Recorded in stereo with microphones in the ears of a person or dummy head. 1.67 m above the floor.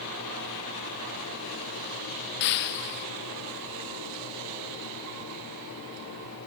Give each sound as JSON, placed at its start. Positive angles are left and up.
{"t": 2.4, "sound": "breaking glass", "side_deg": 60}